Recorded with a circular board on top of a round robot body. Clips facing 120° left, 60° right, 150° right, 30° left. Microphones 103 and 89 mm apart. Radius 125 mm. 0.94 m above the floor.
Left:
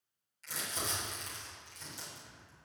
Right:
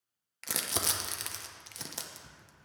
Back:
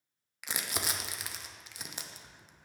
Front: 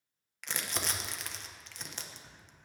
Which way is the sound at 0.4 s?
70° right.